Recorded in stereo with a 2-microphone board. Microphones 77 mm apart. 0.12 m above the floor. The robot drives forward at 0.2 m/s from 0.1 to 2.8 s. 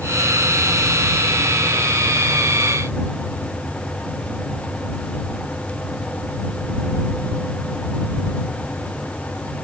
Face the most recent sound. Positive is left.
No sound to turn to.